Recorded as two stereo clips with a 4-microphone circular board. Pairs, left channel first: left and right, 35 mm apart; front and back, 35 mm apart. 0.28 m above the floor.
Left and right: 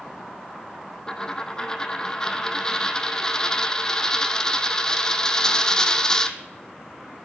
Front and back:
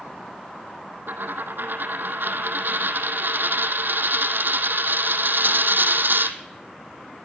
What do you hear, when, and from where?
1.1 s a dropped coin: 160° left, 0.9 m